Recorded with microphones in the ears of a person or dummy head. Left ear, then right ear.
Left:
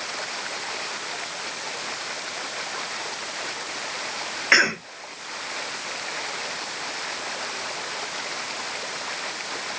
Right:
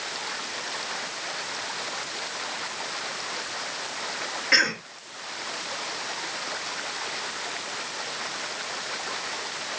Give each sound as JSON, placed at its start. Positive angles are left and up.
{"t": 4.5, "sound": "a cough", "side_deg": 30, "distance_m": 1.3}